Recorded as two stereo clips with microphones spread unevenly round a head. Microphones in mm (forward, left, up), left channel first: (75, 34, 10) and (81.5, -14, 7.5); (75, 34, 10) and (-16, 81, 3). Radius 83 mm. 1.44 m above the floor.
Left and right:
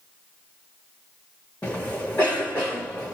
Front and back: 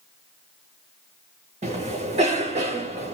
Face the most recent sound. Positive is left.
turn(degrees=180)